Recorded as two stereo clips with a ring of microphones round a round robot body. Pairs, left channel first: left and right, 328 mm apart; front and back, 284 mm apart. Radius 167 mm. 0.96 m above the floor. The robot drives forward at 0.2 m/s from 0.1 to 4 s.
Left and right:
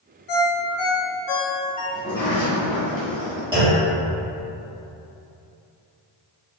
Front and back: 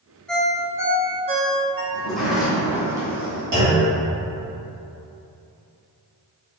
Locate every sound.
0.3 s a ringtone: 85° left, 0.5 m; by 1.8 s 125° left, 0.6 m
1.9 s a sliding door: 80° left, 0.8 m; by 3.4 s 130° left, 0.8 m
3.5 s a clunk: 165° right, 1.6 m